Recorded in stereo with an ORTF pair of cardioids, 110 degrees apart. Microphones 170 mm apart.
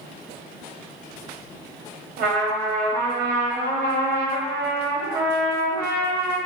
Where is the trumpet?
65° right, 0.9 m.